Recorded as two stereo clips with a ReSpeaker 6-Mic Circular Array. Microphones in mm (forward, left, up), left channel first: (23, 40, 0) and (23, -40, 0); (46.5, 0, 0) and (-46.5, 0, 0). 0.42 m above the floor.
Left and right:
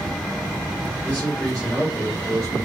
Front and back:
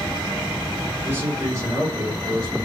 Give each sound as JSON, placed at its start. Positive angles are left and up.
{"t": 1.0, "sound": "a man speaking", "azimuth_deg": 140, "distance_m": 1.2}